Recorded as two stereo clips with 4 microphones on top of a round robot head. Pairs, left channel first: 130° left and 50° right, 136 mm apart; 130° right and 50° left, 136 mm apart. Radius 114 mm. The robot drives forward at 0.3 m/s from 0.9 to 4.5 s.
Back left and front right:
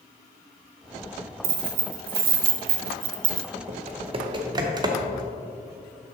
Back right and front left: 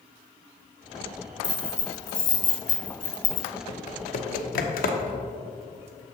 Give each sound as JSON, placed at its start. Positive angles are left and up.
{"t": 1.4, "sound": "keys jangling", "azimuth_deg": -50, "distance_m": 0.9}
{"t": 3.7, "sound": "typing on a keyboard", "azimuth_deg": -90, "distance_m": 0.6}